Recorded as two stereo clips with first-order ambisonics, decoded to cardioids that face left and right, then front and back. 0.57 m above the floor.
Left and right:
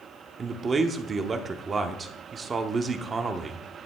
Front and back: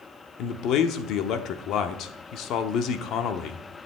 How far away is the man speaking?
About 1.0 m.